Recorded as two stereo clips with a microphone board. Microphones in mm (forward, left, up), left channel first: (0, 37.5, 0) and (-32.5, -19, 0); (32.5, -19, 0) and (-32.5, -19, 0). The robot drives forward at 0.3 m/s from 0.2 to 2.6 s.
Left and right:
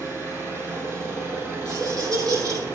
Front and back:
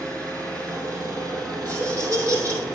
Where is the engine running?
165° right, 3.5 m; by 2.7 s 170° right, 4 m.